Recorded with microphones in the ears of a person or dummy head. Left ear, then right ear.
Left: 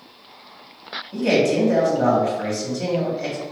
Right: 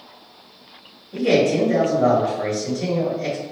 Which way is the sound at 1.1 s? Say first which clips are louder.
Right 1 dB; 35° left (ahead or behind).